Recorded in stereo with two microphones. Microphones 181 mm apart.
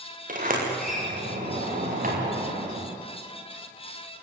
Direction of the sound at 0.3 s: 50° right (ahead or behind).